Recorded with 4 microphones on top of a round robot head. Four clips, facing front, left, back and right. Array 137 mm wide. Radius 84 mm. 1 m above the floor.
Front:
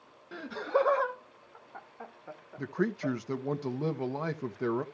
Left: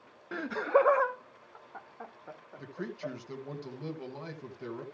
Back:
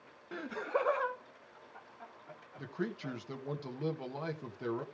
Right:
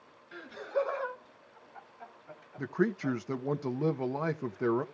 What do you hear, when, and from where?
0.3 s laughter: 95° left, 1.0 m; by 3.1 s 45° left, 4.5 m
2.6 s a man speaking: 55° right, 1.6 m